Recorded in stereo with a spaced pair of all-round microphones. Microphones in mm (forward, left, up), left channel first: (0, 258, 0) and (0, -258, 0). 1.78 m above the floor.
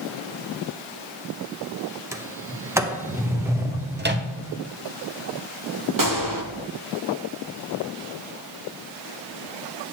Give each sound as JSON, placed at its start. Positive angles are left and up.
{"t": 2.1, "sound": "a sliding door", "side_deg": -5, "distance_m": 0.7}
{"t": 4.0, "sound": "a microwave", "side_deg": -20, "distance_m": 0.6}
{"t": 6.0, "sound": "a gunshot", "side_deg": -40, "distance_m": 0.8}